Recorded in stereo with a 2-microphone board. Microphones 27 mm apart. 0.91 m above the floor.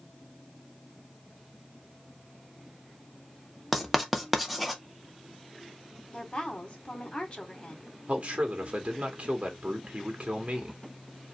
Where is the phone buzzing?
I don't hear a phone buzzing.